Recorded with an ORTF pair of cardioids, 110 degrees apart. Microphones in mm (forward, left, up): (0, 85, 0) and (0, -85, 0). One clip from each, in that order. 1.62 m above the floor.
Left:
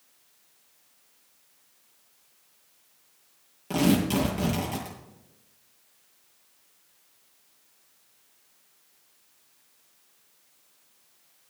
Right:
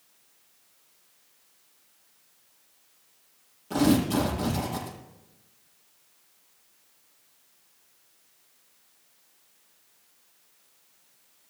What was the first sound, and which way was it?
Tearing paper, 65° left.